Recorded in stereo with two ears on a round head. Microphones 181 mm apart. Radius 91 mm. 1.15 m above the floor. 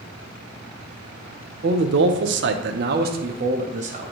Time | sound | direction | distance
1.6 | a man speaking | 50° right (ahead or behind) | 0.8 m